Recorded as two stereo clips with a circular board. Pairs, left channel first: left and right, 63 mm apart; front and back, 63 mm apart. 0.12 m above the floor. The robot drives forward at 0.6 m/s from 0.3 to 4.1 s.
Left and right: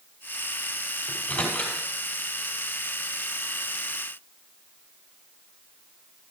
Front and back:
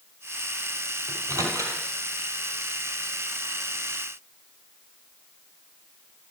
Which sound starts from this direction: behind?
A microwave, at 1.1 s.